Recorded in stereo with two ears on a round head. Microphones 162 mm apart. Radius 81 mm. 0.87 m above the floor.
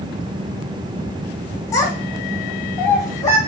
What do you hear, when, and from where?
1.7 s a child speaking: 15° left (ahead or behind), 1.0 m